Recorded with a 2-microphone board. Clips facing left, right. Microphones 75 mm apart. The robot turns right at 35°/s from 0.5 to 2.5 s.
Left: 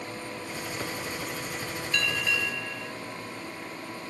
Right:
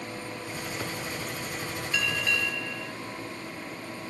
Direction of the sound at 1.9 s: 10° right (ahead or behind).